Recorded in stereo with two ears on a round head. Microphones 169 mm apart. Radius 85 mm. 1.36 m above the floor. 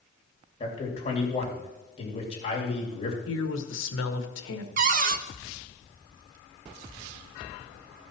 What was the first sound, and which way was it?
A man speaking, 30° left (ahead or behind).